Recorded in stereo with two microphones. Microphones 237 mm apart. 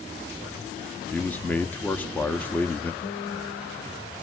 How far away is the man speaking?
About 0.7 m.